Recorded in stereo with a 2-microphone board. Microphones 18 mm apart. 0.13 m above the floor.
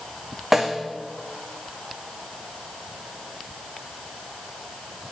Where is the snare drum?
10° right (ahead or behind), 1.6 m.